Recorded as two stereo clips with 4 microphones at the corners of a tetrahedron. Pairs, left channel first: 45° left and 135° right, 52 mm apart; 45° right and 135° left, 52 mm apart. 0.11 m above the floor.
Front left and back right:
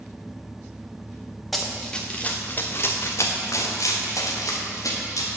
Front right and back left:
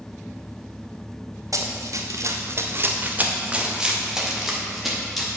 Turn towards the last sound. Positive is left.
turn(degrees=45)